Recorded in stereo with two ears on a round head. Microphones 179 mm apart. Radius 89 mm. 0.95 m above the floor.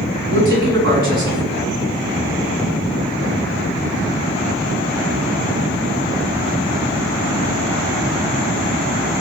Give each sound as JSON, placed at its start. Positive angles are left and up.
{"t": 0.3, "sound": "a man speaking", "side_deg": -45, "distance_m": 8.0}